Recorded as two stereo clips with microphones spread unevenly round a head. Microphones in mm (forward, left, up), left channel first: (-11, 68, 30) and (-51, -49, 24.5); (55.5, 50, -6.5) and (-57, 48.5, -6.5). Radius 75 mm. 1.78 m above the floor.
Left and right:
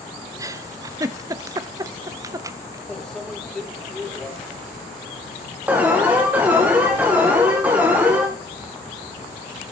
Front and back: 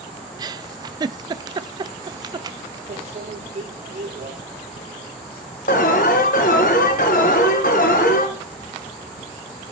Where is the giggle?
160° right, 0.6 m.